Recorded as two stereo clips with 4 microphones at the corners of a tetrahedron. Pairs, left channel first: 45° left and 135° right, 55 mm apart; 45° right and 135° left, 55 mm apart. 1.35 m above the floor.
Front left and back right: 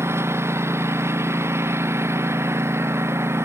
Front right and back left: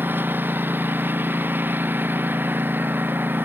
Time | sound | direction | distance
0.0 | a lawn mower | 170° right | ?